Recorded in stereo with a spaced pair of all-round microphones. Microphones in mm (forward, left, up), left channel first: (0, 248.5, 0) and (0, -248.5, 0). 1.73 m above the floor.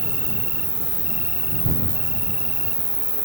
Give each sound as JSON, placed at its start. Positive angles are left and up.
{"t": 0.0, "sound": "an insect", "side_deg": -20}